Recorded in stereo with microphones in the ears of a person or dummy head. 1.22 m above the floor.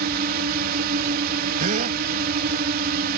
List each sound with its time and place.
0.0 s a drone: 55° right (ahead or behind)
1.6 s a gasp: 45° right (ahead or behind)